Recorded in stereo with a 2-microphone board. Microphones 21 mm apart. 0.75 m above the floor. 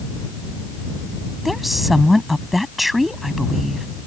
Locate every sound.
1.4 s a woman speaking: centre (ahead or behind)